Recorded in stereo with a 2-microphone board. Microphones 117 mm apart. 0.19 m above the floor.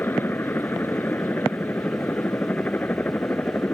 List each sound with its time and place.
0.0 s a helicopter: 20° left (ahead or behind); by 3.8 s 15° left (ahead or behind)